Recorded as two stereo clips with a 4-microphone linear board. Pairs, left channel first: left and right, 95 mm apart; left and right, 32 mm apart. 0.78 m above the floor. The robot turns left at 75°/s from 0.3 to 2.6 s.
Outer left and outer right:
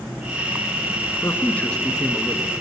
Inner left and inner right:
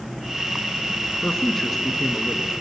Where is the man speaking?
55° left, 1.2 m; by 2.5 s 40° right, 1.2 m.